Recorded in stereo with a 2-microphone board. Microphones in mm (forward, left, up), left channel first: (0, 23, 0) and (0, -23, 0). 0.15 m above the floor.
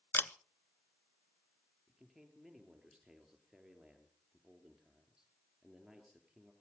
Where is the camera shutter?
50° left (ahead or behind), 0.5 m.